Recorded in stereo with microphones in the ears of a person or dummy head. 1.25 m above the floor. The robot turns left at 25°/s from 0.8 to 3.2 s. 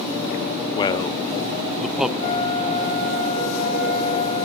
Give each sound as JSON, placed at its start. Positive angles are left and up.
{"t": 0.8, "sound": "a man speaking", "side_deg": 25, "distance_m": 0.7}
{"t": 2.2, "sound": "a flute", "side_deg": 55, "distance_m": 8.0}